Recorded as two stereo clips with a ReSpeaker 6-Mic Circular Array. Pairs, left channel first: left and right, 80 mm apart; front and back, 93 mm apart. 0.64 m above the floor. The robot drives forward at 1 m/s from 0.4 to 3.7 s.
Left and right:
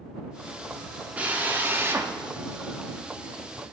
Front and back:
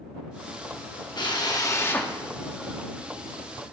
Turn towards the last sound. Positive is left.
turn(degrees=-165)